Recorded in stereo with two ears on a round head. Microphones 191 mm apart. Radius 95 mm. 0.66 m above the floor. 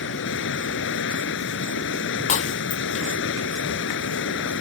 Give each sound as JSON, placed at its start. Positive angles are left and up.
{"t": 0.0, "sound": "running water", "side_deg": 60}
{"t": 2.3, "sound": "breaking glass", "side_deg": 35}